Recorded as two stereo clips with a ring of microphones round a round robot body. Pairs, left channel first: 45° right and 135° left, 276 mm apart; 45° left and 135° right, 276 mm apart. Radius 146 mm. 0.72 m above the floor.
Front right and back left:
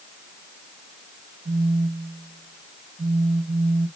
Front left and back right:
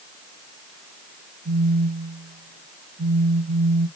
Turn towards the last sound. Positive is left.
turn(degrees=-170)